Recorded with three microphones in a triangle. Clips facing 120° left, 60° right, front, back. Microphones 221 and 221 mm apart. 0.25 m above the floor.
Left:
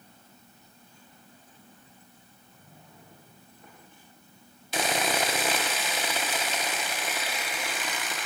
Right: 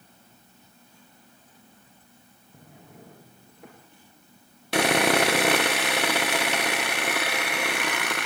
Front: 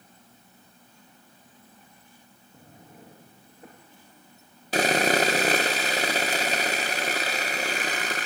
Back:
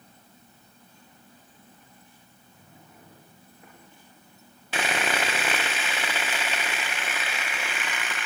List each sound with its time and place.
2.5 s a drawer: 55° right, 7 m
4.7 s sawing: 50° right, 1.6 m